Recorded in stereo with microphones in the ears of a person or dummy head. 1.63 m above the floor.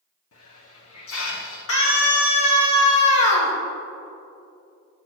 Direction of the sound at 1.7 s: 70° left (ahead or behind).